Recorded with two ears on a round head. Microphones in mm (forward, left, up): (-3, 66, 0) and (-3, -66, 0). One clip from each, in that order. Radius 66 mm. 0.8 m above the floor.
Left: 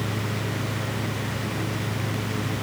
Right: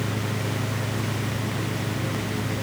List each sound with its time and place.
Only background noise.